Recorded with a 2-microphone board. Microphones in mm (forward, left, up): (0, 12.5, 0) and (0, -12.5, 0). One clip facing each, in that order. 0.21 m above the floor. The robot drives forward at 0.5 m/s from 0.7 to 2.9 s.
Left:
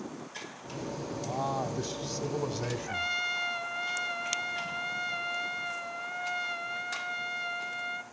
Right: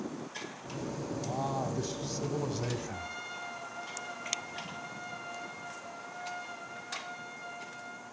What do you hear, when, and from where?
1.2 s a man speaking: 15° left (ahead or behind), 1.1 m
2.9 s a trumpet: 55° left (ahead or behind), 0.9 m